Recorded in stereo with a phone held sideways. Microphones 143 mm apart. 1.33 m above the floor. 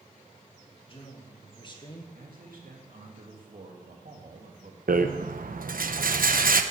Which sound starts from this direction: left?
A man speaking, at 0.8 s.